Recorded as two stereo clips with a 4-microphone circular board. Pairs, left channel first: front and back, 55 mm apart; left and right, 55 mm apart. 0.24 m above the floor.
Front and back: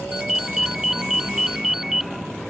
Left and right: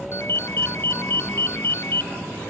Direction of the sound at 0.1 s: 100° left.